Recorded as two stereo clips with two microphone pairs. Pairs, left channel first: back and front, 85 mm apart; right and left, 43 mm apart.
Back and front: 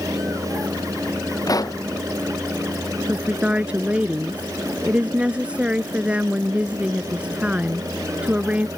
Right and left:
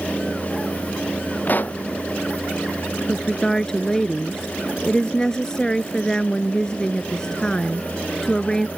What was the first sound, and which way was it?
A pop, 135° right.